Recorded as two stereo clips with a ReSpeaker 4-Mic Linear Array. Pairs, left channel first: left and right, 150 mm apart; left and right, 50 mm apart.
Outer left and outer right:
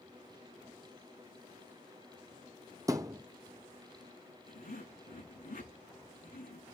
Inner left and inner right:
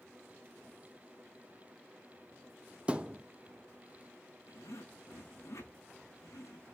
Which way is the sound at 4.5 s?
80° left.